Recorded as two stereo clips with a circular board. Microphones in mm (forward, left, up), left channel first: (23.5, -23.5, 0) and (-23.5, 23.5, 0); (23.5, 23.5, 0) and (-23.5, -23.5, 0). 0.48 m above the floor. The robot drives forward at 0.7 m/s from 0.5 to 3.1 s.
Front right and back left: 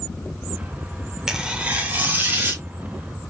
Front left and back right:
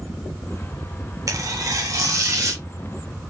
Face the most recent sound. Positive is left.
turn(degrees=-170)